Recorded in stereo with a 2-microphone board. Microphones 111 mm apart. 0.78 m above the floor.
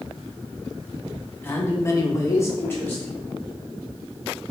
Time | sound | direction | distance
1.4 | a man speaking | 20° left (ahead or behind) | 0.9 m